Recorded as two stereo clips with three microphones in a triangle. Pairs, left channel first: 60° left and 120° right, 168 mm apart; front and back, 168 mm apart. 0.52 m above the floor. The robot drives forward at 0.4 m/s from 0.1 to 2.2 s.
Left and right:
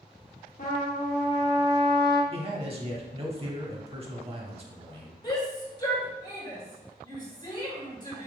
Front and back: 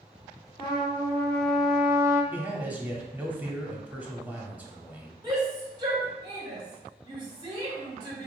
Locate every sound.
0.6 s a trumpet: 55° left, 0.8 m; by 2.2 s 115° left, 0.8 m
2.3 s a man speaking: 105° right, 0.8 m
5.2 s a shout: 120° left, 2.0 m